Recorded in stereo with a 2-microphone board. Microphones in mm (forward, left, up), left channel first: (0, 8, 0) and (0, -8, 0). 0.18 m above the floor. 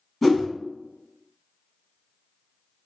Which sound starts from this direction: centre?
A whoosh, at 0.2 s.